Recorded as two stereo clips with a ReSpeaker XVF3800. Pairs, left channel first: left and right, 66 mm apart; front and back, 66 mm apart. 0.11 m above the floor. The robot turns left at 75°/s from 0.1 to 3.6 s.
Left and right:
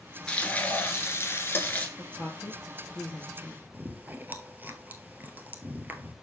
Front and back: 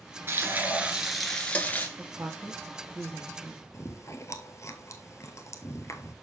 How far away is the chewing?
About 1.0 m.